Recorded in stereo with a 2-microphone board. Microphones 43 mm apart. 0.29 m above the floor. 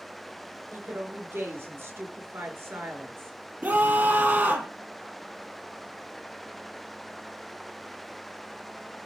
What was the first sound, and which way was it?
A woman speaking, 70° right (ahead or behind).